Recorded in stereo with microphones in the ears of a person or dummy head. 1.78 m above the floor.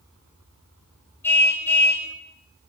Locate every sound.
1.2 s a car horn: 10° left (ahead or behind), 5 m